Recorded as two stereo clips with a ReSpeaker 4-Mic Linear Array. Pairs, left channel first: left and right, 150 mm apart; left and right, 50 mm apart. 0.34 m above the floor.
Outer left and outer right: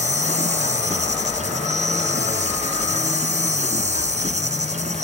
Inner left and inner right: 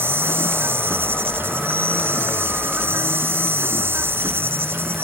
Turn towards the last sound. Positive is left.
turn(degrees=-50)  # may be behind; listen again after turning